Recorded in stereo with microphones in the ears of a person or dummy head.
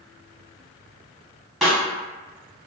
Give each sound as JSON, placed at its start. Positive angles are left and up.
{"t": 1.6, "sound": "a snare drum", "side_deg": 0, "distance_m": 1.0}